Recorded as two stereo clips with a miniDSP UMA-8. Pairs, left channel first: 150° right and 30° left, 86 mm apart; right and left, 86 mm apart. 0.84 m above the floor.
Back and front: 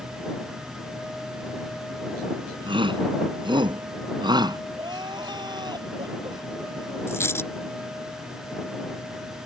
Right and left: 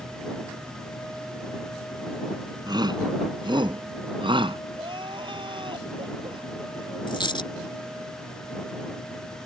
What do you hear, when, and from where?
2.7 s a shout: 50° left; by 4.6 s 65° left
4.8 s crying: 65° left
7.1 s a dropped coin: 95° right